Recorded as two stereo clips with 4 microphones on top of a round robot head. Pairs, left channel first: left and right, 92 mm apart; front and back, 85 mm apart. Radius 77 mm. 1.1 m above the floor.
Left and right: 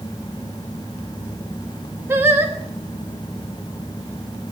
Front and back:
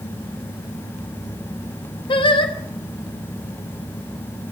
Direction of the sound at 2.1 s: 25° right.